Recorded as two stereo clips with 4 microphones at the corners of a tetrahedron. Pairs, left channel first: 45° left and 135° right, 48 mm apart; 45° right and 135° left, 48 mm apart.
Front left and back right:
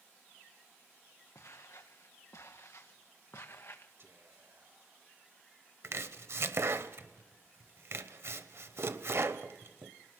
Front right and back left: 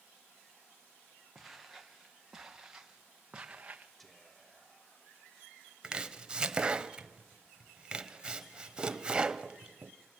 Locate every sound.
1.4 s footsteps: 45° left, 3 m; by 3.9 s 75° left, 1.7 m
4.0 s whispering: 135° right, 1.4 m
5.8 s chopping: 155° right, 0.9 m